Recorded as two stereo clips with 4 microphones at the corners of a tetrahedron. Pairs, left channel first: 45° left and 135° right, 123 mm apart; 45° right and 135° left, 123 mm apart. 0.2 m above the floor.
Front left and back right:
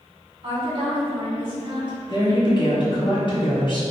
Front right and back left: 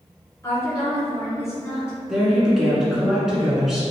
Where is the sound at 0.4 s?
105° right, 2.0 m.